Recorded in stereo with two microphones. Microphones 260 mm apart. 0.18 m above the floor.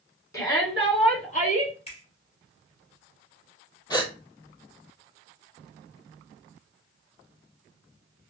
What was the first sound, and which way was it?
A shout, 15° left (ahead or behind).